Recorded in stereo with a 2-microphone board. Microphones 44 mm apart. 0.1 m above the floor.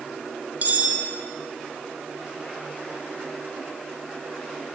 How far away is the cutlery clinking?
About 1.8 m.